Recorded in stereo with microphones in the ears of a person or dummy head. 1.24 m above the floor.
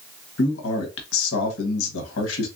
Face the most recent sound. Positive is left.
turn(degrees=85)